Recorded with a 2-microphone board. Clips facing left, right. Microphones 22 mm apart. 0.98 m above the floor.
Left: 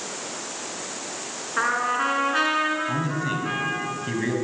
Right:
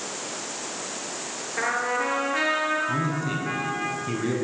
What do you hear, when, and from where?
1.6 s a trumpet: 35° left (ahead or behind), 4.5 m
2.9 s a man speaking: 35° left (ahead or behind), 7 m